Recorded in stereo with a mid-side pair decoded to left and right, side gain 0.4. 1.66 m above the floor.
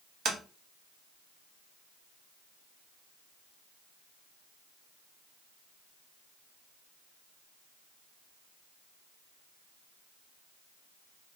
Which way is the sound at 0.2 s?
50° right.